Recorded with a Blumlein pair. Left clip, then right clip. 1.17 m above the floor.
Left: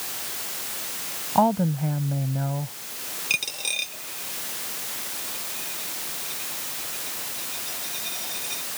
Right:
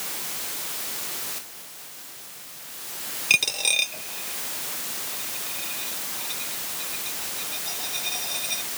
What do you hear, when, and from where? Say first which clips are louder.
1.4 s a woman speaking: left 21 dB; 45° left
3.3 s a dropped coin: right 5 dB; 15° right